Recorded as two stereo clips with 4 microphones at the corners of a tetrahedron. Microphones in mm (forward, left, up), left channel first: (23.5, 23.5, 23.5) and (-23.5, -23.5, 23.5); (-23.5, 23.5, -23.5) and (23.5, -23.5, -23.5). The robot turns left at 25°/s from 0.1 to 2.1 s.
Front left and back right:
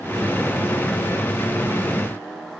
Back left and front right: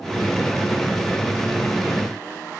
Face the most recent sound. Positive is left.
No sound to turn to.